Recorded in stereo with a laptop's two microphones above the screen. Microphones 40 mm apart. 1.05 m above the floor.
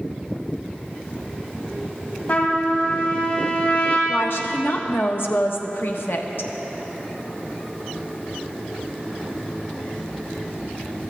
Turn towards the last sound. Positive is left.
turn(degrees=65)  # may be behind; listen again after turning